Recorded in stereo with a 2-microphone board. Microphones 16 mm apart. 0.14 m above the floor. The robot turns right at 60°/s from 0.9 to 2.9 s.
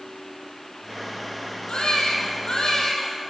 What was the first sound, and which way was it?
A baby crying, 65° left.